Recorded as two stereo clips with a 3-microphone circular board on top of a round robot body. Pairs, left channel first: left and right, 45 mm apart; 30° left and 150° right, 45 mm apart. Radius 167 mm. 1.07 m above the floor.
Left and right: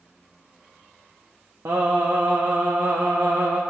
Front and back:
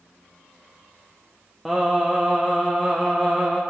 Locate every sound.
1.6 s singing: 60° right, 0.6 m